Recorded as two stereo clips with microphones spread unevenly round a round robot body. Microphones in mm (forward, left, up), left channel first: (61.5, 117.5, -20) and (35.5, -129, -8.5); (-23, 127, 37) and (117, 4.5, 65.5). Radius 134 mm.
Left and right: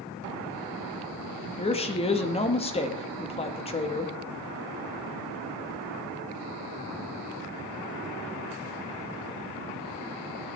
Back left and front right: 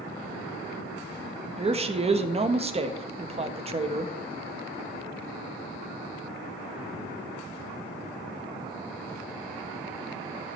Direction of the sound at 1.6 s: 20° left.